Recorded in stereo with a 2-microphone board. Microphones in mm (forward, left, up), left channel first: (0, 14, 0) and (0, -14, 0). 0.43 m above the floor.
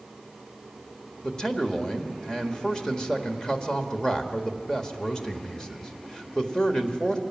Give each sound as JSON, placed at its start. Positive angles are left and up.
{"t": 1.2, "sound": "a man speaking", "side_deg": 25, "distance_m": 1.6}